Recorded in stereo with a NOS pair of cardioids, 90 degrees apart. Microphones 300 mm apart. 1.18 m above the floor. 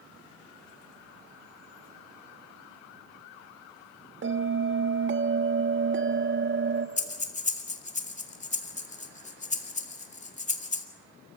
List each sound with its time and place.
4.2 s a bell: 40° right, 1.3 m
7.0 s breathing: 20° left, 2 m